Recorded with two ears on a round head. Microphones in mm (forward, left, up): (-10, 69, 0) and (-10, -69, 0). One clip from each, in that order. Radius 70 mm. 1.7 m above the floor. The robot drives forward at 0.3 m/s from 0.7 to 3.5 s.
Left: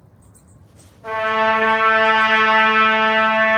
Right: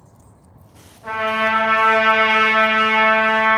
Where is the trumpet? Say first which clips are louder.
Left 2 dB; 35° right (ahead or behind), 1.5 m; by 3.6 s 25° right (ahead or behind), 2 m.